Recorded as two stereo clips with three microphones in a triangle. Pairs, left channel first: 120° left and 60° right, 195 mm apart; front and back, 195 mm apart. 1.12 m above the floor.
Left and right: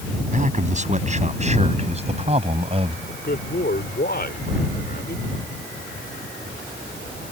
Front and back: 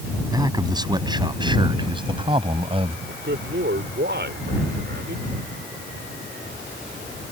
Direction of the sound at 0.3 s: 110° right.